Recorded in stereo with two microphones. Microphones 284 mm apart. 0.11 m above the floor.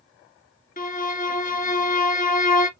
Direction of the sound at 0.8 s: 30° left (ahead or behind).